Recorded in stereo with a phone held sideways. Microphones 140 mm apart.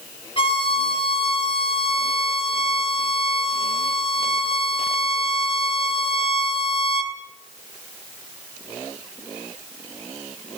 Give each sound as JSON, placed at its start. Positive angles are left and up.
{"t": 0.4, "sound": "a violin", "side_deg": 40, "distance_m": 3.0}